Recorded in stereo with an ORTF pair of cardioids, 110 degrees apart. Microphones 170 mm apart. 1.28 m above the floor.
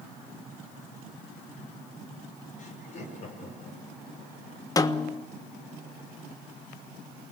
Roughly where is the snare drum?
Ahead.